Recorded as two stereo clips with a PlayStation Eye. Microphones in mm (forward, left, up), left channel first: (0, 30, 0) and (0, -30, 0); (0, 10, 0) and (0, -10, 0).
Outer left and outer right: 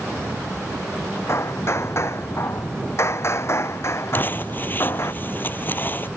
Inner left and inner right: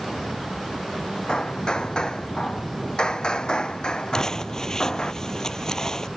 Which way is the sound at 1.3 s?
45° left (ahead or behind).